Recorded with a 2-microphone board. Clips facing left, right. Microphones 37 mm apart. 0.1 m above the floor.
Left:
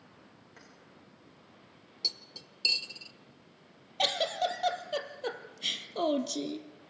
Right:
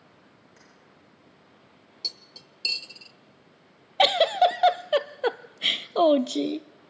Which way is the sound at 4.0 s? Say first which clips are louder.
Right 10 dB; 40° right (ahead or behind).